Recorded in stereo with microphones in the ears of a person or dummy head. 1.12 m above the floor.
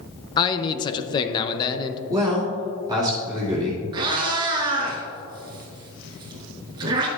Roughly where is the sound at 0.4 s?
Left.